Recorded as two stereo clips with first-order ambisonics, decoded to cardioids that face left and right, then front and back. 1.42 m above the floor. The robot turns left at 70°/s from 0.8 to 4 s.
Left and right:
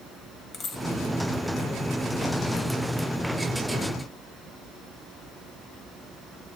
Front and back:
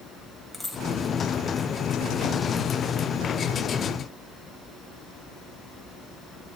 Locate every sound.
0.5 s a dropped coin: 80° left, 1.3 m; by 0.8 s 75° left, 1.3 m